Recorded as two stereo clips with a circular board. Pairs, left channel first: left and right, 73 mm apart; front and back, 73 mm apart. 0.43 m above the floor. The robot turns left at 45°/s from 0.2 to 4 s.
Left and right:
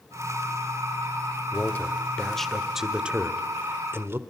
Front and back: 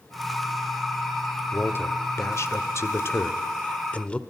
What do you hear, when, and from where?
1.5 s a man speaking: 45° left, 1.5 m; by 4.2 s 65° right, 1.5 m